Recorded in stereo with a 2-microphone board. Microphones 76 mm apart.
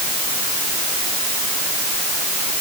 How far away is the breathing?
I don't hear breathing.